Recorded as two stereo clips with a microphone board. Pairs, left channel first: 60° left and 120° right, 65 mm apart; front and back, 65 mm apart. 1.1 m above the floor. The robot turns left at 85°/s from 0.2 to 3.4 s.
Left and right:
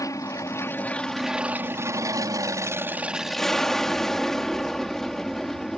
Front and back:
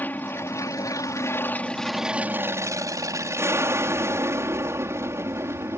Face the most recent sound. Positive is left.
turn(degrees=145)